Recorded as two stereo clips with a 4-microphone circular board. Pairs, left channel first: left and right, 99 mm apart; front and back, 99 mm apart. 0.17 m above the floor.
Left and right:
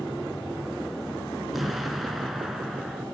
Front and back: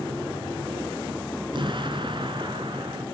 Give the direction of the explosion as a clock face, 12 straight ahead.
6 o'clock.